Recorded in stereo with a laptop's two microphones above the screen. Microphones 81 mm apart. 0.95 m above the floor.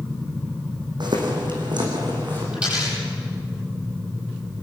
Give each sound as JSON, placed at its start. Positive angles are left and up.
{"t": 1.0, "sound": "footsteps", "side_deg": -65, "distance_m": 3.0}
{"t": 2.5, "sound": "a dropped coin", "side_deg": -15, "distance_m": 10.0}